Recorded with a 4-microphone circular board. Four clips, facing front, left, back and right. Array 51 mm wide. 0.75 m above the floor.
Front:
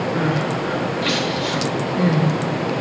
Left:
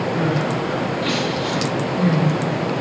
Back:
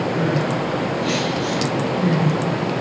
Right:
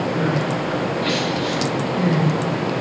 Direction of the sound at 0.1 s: 5° right.